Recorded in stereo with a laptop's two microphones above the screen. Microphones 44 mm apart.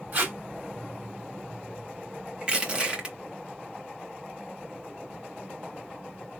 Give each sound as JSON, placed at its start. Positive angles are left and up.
{"t": 0.1, "sound": "tape being pulled", "side_deg": -40, "distance_m": 1.8}
{"t": 2.4, "sound": "crushing", "side_deg": -25, "distance_m": 0.9}